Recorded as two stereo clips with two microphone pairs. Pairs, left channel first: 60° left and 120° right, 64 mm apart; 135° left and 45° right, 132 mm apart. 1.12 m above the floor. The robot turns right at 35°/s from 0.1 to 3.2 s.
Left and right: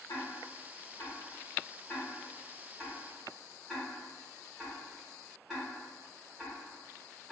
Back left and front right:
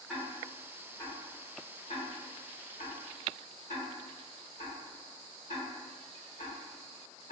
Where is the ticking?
45° left, 1.2 m; by 7.3 s 155° left, 1.2 m.